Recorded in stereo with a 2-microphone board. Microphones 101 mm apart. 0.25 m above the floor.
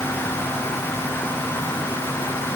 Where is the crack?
I don't hear a crack.